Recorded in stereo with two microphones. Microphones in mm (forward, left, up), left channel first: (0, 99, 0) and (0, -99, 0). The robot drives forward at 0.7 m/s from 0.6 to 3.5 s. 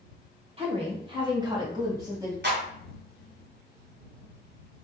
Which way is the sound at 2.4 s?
65° right (ahead or behind).